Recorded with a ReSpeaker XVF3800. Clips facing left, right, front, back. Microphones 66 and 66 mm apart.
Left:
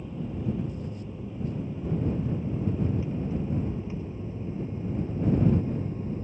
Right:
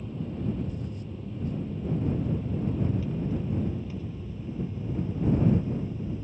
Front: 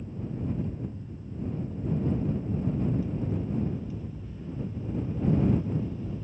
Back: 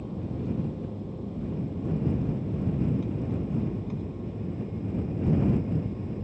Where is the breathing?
No breathing in this recording.